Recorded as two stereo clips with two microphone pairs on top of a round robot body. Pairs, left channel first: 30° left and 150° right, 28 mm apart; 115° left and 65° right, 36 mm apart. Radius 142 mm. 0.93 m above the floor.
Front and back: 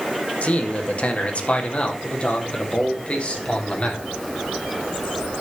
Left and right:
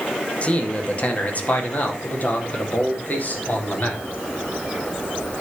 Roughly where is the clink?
No clink in this recording.